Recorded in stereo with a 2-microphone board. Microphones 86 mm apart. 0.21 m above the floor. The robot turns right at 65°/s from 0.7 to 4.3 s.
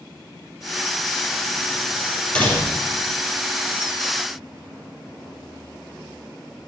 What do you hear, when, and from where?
2.4 s a door slam: 15° left, 3.5 m; by 2.9 s 50° left, 3.5 m